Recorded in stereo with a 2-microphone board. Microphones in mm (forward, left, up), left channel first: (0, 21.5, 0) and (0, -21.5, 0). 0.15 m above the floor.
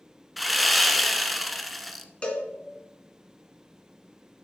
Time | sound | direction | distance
0.4 | sawing | centre (ahead or behind) | 0.7 m
2.2 | a cowbell | 25° left (ahead or behind) | 1.7 m